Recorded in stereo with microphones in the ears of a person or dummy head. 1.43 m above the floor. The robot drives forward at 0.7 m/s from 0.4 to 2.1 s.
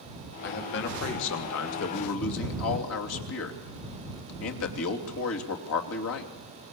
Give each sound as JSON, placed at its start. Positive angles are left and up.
{"t": 0.4, "sound": "a man speaking", "side_deg": 60, "distance_m": 3.5}